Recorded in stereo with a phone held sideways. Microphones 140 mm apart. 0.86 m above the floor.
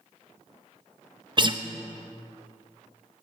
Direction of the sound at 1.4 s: 35° right (ahead or behind).